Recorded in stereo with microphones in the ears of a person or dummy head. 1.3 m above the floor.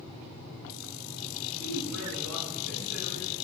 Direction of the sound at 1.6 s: 70° right (ahead or behind).